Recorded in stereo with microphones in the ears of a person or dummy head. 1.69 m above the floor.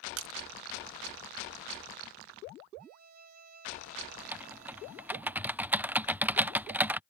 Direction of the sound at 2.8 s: 45° right (ahead or behind).